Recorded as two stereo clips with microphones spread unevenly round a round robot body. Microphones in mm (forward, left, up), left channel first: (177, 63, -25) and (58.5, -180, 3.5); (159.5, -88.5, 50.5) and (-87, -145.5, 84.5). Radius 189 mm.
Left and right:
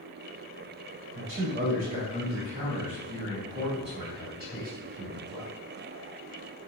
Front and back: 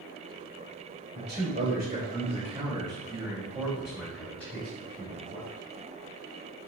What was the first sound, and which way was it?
A man speaking, 135° right.